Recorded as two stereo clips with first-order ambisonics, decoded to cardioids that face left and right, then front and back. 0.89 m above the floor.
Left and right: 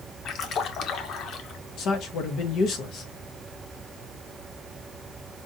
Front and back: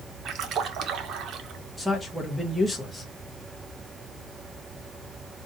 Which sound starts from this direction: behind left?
A splash, at 0.2 s.